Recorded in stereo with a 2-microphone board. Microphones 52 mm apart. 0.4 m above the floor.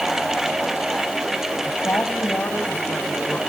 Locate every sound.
1.6 s a woman speaking: 35° left (ahead or behind), 1.9 m; by 3.4 s 20° left (ahead or behind), 3 m